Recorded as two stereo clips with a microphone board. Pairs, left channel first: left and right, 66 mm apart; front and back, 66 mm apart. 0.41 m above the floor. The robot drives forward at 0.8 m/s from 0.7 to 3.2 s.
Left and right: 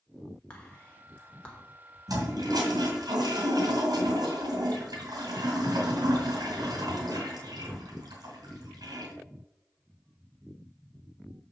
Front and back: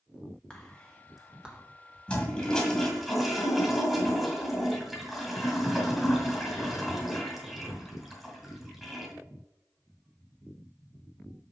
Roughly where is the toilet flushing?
Right.